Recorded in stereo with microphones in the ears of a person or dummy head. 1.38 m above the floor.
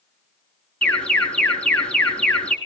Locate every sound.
0.8 s an alarm: 10° left (ahead or behind), 4.5 m